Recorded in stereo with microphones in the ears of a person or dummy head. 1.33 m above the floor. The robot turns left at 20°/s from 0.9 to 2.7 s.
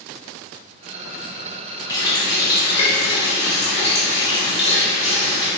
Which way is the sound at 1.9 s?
20° left (ahead or behind).